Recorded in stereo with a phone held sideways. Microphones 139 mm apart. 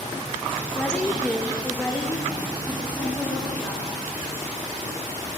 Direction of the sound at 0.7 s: 10° left (ahead or behind).